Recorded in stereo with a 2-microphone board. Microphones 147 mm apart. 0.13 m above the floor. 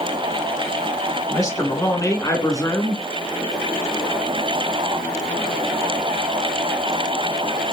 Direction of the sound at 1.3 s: 25° left (ahead or behind).